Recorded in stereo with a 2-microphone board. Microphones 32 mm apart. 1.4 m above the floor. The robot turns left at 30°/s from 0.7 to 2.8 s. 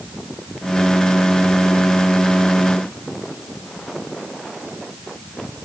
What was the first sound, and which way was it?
Only background noise.